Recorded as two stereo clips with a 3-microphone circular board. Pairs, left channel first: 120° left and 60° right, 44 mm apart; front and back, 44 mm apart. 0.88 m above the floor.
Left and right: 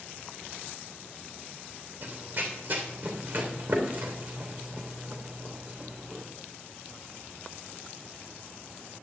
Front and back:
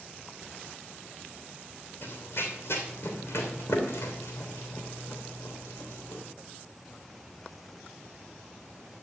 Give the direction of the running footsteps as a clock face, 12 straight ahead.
1 o'clock.